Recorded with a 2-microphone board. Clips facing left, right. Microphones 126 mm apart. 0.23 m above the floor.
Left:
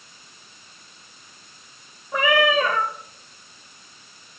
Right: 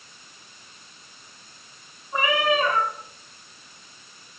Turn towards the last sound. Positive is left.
turn(degrees=85)